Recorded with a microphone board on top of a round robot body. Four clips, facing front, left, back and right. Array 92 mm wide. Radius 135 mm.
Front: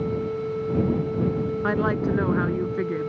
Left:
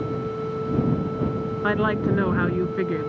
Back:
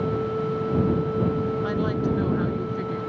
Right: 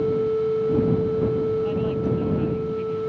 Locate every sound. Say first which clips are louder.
1.6 s a woman speaking: left 2 dB, front 2 dB; 60° left; by 3.1 s 65° left